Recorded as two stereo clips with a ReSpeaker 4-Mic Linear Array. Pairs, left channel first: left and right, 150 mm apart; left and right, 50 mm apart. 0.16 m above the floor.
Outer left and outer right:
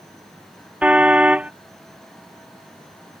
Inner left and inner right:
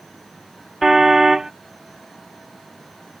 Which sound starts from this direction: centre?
A car horn, at 0.8 s.